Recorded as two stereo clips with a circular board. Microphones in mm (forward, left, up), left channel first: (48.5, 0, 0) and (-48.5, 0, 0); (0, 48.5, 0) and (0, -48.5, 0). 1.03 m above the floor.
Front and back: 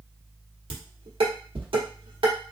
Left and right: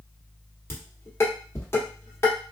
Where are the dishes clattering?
155° left, 1.2 m.